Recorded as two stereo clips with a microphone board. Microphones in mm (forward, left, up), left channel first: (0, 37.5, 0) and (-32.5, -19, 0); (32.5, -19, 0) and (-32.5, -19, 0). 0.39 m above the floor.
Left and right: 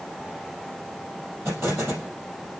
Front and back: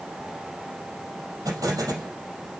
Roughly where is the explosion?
Behind.